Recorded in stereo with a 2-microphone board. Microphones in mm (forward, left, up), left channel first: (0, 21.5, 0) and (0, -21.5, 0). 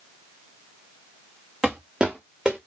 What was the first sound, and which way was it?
Footsteps, 10° right (ahead or behind).